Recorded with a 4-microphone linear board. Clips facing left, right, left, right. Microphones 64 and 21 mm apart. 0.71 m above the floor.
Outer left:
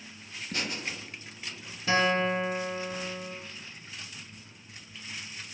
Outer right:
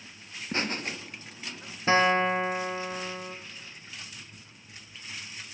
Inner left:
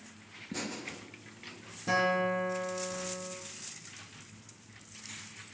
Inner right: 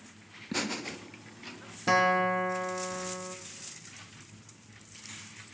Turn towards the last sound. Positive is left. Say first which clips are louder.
# outer right 3 dB, inner right 4 dB
turn(degrees=-35)  # may be behind; listen again after turning